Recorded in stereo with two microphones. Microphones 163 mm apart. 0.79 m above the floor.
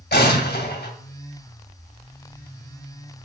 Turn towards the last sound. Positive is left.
turn(degrees=85)